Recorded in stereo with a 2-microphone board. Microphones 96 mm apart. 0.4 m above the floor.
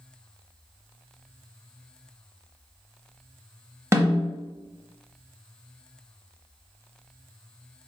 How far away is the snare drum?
About 0.7 m.